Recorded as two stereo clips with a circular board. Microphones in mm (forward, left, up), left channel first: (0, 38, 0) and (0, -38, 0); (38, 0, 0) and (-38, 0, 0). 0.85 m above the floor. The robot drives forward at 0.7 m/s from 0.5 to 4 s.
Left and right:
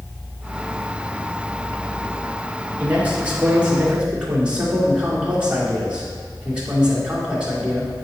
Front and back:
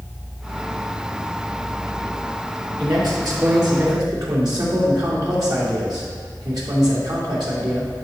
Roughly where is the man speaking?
Behind right.